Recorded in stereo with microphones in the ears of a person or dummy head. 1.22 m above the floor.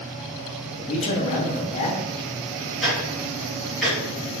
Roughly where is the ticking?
Centre.